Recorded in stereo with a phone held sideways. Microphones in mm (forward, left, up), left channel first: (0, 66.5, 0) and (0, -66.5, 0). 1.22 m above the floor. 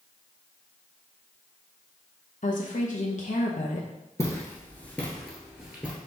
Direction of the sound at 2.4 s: 70° left (ahead or behind).